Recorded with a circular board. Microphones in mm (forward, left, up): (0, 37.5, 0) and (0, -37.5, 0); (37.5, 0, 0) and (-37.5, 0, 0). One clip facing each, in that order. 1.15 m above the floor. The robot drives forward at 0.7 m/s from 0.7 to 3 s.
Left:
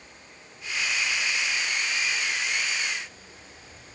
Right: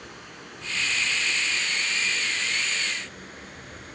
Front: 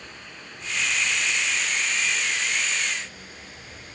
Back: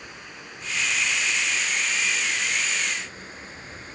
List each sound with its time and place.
0.0 s running water: 100° right, 4 m; by 4.0 s 120° right, 5 m